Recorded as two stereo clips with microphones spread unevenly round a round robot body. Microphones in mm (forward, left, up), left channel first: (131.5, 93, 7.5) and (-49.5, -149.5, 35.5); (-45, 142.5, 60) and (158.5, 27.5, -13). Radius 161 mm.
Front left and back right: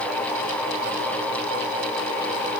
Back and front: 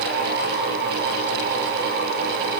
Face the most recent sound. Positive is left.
No sound to turn to.